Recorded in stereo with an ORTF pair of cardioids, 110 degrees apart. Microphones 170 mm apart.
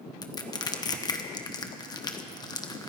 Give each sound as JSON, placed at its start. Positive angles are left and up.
{"t": 0.2, "sound": "crushing", "azimuth_deg": 25, "distance_m": 1.2}